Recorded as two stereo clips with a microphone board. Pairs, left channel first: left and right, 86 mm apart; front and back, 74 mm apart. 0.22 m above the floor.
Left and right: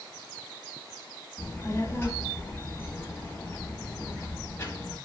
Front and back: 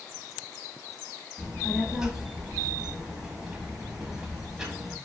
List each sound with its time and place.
1.4 s a child speaking: 105° left, 0.6 m